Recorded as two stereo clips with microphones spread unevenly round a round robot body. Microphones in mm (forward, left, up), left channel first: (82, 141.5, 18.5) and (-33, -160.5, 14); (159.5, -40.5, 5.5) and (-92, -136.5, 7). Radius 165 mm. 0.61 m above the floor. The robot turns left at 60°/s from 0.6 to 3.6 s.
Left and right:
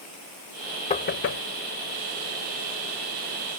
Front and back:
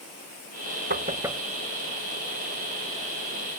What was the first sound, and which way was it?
Knocking, 140° left.